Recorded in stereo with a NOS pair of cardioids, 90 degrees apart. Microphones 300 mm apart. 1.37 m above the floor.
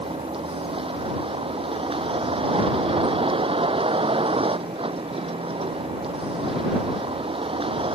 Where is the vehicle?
15° right.